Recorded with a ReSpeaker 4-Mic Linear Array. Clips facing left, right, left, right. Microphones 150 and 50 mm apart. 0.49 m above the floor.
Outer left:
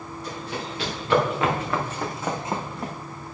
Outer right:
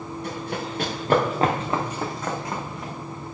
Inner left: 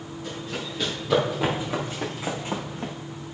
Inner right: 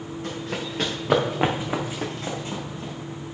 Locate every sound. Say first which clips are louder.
0.2 s running footsteps: outer right 2 dB, inner right 2 dB; 60° right (ahead or behind), 3 m; by 2.9 s 50° left (ahead or behind), 1.7 m